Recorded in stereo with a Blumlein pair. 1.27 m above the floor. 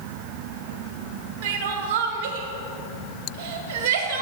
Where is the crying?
45° right, 1.9 m.